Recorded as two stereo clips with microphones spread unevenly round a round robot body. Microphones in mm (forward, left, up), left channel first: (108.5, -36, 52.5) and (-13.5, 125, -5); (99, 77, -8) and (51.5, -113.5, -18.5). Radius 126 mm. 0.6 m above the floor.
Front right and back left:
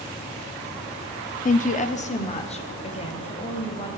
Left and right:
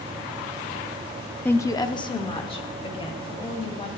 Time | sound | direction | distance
1.4 | a woman speaking | 5° right | 0.6 m